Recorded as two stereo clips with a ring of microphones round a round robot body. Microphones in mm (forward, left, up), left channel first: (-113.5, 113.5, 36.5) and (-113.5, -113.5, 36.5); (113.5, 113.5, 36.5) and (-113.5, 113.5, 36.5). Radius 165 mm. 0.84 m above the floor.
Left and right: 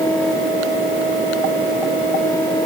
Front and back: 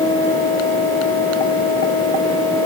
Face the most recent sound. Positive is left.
No sound to turn to.